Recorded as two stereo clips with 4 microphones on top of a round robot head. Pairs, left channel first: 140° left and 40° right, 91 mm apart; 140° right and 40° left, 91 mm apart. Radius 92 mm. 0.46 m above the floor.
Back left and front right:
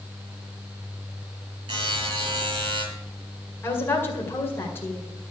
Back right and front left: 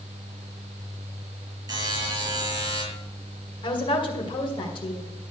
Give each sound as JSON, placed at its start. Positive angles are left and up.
{"t": 1.7, "sound": "a buzzer", "azimuth_deg": -10, "distance_m": 5.5}
{"t": 3.6, "sound": "a woman speaking", "azimuth_deg": -160, "distance_m": 2.0}